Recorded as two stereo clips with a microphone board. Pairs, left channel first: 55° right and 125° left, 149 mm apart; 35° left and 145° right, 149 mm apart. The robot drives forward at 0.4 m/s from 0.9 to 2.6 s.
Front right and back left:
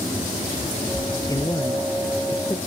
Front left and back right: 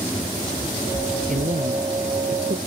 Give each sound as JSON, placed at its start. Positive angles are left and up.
{"t": 1.3, "sound": "a man speaking", "azimuth_deg": -125}